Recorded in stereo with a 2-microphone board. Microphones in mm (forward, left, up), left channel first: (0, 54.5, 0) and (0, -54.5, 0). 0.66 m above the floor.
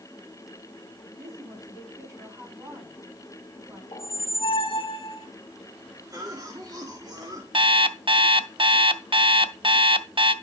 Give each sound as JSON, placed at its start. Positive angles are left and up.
{"t": 1.2, "sound": "a woman speaking", "side_deg": -30, "distance_m": 6.0}
{"t": 3.9, "sound": "a squeak", "side_deg": 55, "distance_m": 1.0}
{"t": 6.1, "sound": "a cough", "side_deg": -35, "distance_m": 1.6}
{"t": 7.5, "sound": "an alarm clock", "side_deg": -50, "distance_m": 0.6}